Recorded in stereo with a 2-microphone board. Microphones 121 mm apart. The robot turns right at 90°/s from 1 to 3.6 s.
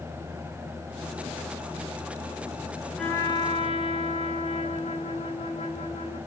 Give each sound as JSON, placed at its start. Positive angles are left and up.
{"t": 3.0, "sound": "a trumpet", "azimuth_deg": 0, "distance_m": 5.0}